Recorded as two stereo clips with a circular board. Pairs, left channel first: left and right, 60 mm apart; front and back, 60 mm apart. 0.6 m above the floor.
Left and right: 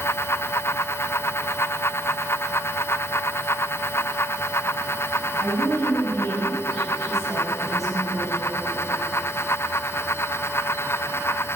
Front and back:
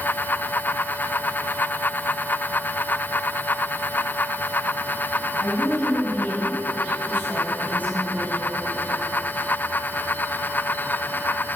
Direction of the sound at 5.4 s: 40° left.